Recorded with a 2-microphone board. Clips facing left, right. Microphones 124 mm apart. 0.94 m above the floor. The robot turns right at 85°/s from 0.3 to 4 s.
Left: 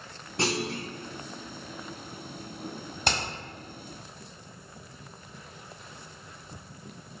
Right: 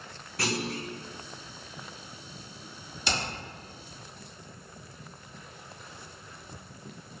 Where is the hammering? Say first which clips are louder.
Left 2 dB; 55° left (ahead or behind), 1.7 m; by 3.2 s 45° left (ahead or behind), 1.7 m.